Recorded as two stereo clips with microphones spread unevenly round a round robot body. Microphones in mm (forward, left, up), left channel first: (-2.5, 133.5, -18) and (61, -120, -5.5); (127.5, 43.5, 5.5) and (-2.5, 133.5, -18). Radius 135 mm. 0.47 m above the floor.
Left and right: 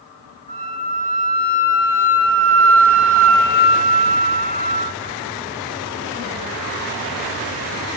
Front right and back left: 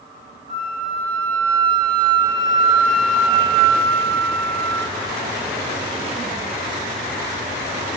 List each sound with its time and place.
0.5 s a flute: 170° left, 0.8 m